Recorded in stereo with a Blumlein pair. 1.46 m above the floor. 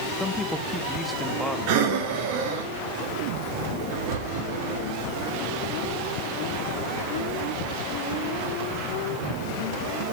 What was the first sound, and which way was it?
A man speaking, 5° left.